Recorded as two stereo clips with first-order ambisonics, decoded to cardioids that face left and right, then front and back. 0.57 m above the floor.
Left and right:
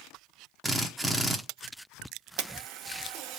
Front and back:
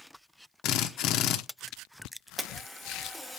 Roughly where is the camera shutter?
Right.